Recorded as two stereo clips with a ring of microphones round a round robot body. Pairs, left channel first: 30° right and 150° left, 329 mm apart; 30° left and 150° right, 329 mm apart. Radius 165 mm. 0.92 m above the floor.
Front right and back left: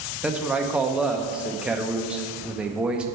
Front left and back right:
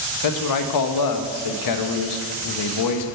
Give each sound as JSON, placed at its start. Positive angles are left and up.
{"t": 0.2, "sound": "a man speaking", "azimuth_deg": 65, "distance_m": 0.7}